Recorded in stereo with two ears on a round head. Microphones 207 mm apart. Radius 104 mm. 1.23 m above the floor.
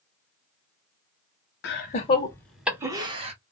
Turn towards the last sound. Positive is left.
turn(degrees=-25)  # may be behind; listen again after turning